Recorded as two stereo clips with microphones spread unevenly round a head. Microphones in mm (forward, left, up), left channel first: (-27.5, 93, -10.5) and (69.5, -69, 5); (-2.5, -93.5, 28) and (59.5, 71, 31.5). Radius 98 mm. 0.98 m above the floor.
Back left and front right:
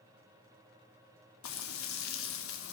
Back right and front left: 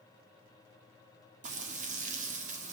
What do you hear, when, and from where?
1.4 s frying: 120° left, 3 m